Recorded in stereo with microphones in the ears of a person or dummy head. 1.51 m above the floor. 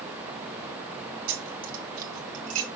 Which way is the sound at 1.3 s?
60° right (ahead or behind).